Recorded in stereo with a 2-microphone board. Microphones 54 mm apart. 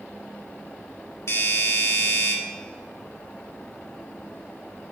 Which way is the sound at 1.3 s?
60° left (ahead or behind).